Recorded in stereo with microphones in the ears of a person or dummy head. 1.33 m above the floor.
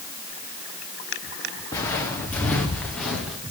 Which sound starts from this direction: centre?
Footsteps, at 1.7 s.